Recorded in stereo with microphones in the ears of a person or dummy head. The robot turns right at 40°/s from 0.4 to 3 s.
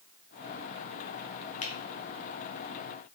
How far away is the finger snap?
About 0.5 m.